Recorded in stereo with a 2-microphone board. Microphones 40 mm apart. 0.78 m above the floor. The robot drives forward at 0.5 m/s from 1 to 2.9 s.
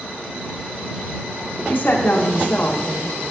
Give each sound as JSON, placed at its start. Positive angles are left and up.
{"t": 1.7, "sound": "a woman speaking", "side_deg": 50, "distance_m": 1.0}